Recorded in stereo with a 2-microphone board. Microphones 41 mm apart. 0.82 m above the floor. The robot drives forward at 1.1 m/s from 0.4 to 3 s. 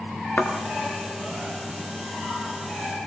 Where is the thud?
45° left (ahead or behind), 3.5 m; by 0.5 s 50° left (ahead or behind), 3.5 m.